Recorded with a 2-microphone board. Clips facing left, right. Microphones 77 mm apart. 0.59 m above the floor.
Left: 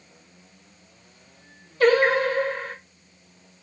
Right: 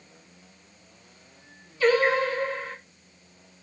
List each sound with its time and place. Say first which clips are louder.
1.8 s singing: left 3 dB; 60° left (ahead or behind), 0.6 m